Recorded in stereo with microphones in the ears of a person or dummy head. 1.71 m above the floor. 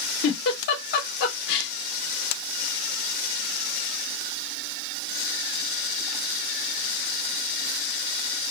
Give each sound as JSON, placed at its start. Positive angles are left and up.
{"t": 0.2, "sound": "a giggle", "side_deg": 65, "distance_m": 1.0}